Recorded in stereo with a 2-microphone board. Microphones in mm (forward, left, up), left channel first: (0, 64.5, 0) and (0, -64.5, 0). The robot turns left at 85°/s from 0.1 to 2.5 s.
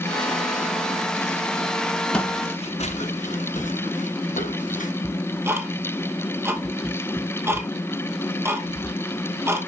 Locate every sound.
2.1 s footsteps: 10° left (ahead or behind), 1.8 m; by 4.9 s 85° left, 4.5 m
5.0 s ticking: 20° right (ahead or behind), 1.9 m